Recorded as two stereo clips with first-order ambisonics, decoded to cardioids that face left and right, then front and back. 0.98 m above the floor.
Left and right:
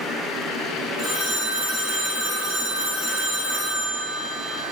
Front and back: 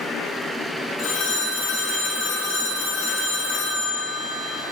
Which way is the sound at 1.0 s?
35° left.